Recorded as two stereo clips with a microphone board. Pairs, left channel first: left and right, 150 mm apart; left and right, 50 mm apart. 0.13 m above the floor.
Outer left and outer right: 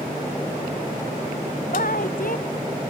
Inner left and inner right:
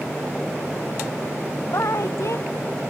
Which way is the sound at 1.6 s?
65° left (ahead or behind).